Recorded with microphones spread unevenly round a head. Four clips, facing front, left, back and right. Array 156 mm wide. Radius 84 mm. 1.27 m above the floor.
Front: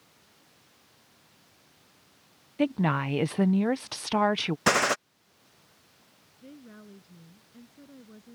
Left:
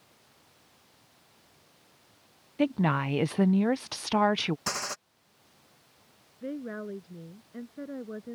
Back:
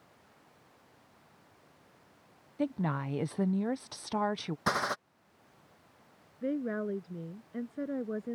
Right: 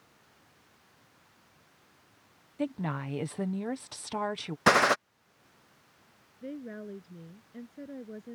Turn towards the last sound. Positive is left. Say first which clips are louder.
# left 4 dB, back 16 dB
turn(degrees=165)